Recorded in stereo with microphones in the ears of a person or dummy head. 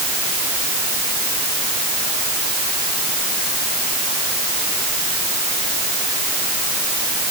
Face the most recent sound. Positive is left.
No sound to turn to.